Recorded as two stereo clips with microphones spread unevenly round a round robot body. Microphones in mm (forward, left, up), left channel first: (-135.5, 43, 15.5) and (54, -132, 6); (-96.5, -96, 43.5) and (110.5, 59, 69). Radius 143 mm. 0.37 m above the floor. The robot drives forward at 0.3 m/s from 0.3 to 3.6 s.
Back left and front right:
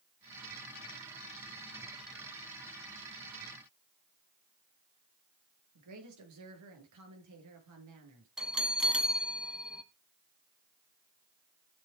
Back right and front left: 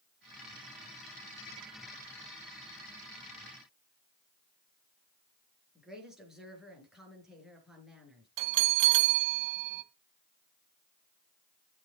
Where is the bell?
45° left, 1.5 m.